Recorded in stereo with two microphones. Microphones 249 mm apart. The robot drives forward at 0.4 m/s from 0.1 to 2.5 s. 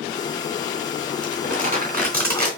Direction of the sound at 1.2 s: 35° right (ahead or behind).